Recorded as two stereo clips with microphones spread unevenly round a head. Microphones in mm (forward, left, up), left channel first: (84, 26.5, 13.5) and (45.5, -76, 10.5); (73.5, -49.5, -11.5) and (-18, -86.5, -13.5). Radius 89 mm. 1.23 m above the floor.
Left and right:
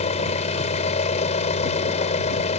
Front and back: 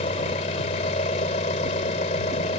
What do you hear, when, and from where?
0.0 s an engine running: 55° left